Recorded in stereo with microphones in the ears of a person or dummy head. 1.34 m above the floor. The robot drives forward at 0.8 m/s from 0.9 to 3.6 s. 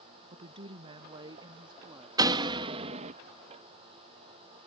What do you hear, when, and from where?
0.3 s a woman speaking: 35° right (ahead or behind); by 2.1 s 20° right (ahead or behind)
2.2 s a door slam: 20° right (ahead or behind); by 3.1 s 40° right (ahead or behind)